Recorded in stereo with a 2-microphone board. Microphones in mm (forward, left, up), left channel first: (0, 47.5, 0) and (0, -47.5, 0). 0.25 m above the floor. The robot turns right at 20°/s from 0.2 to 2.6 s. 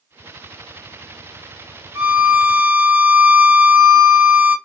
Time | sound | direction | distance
1.9 | a violin | 25° right (ahead or behind) | 1.9 m